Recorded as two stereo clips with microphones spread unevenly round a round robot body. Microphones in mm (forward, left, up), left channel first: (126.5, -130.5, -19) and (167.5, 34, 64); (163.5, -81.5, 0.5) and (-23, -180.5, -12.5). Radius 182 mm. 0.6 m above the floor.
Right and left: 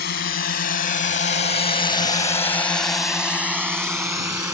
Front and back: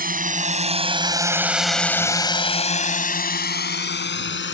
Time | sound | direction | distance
0.0 | a drone | 105° right | ?